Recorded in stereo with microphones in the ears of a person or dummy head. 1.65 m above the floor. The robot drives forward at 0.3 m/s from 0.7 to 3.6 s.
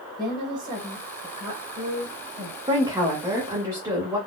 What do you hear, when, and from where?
0.2 s a woman speaking: 25° right (ahead or behind), 1.5 m; by 2.6 s 40° right (ahead or behind), 1.1 m
2.7 s a woman speaking: 20° right (ahead or behind), 0.6 m; by 4.2 s 15° right (ahead or behind), 0.9 m